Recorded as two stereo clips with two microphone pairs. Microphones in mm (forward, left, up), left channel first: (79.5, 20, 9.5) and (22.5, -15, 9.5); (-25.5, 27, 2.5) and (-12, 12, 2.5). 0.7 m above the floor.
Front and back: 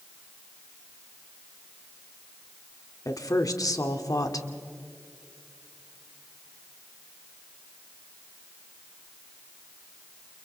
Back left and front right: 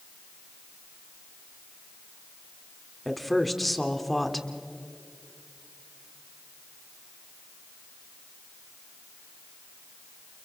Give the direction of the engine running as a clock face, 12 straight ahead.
No engine running in this recording.